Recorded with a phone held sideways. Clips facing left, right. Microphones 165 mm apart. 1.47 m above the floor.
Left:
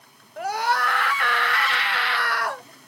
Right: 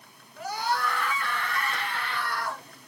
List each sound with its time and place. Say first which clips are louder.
0.4 s a scream: left 5 dB; 65° left (ahead or behind), 1.7 m; by 2.6 s 70° left (ahead or behind), 1.1 m